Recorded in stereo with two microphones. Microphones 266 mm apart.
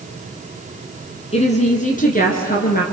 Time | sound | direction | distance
1.3 | a woman speaking | 25° left (ahead or behind) | 1.9 m